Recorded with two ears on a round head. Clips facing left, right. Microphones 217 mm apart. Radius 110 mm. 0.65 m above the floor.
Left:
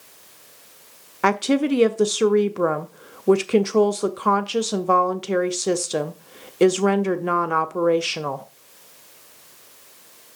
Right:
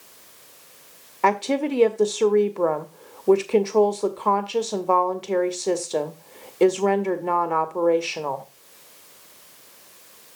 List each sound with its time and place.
1.2 s a woman speaking: 20° left (ahead or behind), 0.6 m